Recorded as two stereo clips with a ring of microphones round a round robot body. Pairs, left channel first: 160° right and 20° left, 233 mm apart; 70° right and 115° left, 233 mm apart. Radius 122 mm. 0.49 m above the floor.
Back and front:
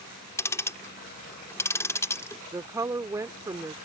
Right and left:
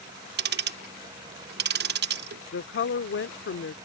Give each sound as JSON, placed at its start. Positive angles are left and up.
{"t": 0.4, "sound": "ticking", "azimuth_deg": 130}
{"t": 2.5, "sound": "a woman speaking", "azimuth_deg": -50}